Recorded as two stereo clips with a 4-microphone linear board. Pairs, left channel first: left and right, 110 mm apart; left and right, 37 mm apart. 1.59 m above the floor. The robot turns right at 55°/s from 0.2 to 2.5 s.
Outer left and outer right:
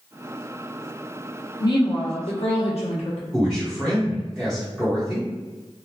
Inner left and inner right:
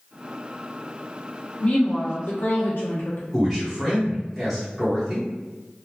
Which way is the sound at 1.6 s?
40° left.